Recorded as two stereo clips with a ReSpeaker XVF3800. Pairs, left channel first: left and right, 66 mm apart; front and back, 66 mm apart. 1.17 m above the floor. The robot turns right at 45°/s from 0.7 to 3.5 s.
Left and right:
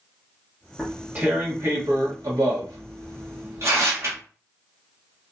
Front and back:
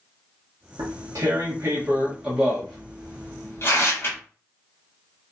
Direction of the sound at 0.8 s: 170° right.